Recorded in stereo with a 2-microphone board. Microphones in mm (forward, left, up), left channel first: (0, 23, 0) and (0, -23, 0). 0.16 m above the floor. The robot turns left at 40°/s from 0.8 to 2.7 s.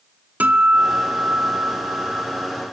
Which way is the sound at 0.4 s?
70° right.